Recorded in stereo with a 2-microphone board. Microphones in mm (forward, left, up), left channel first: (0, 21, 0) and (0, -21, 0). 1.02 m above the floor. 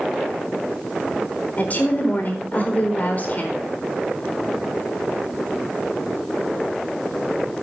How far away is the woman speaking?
About 4 m.